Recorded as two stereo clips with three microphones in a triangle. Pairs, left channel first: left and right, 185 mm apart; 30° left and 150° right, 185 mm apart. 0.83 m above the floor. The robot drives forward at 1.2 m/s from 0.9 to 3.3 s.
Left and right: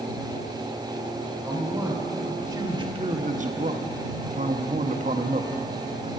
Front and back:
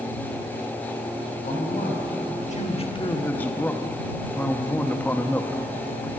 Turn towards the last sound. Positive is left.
turn(degrees=-50)